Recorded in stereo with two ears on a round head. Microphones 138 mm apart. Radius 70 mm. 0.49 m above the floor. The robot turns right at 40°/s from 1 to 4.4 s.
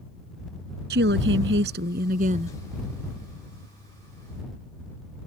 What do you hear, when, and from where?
0.9 s a woman speaking: 100° right; by 2.6 s 35° right